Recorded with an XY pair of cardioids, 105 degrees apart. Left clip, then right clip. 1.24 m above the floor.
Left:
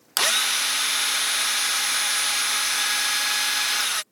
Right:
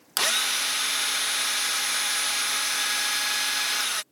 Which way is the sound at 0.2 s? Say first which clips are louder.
Left 3 dB; 20° left.